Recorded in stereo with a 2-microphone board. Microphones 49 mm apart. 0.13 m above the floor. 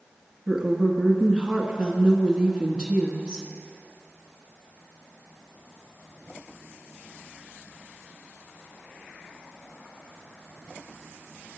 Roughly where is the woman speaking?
Centre.